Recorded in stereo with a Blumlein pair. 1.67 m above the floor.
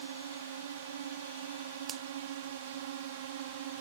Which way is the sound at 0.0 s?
60° right.